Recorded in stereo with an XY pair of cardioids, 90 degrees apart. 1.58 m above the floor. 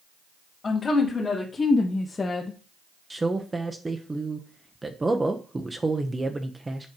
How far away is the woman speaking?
About 3 m.